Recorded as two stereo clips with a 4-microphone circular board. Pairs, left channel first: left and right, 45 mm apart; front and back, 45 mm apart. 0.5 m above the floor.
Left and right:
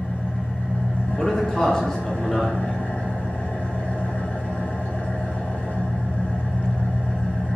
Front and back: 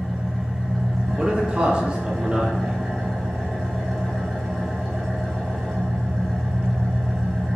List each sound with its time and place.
0.0 s an engine running: 85° left, 1.2 m
1.2 s a man speaking: 145° left, 0.8 m